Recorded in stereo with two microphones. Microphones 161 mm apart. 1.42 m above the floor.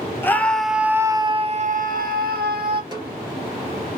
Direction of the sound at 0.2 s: 15° left (ahead or behind).